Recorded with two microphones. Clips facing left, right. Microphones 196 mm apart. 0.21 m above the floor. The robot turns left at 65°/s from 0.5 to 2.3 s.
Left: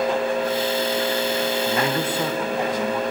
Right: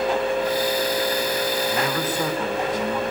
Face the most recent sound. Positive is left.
turn(degrees=5)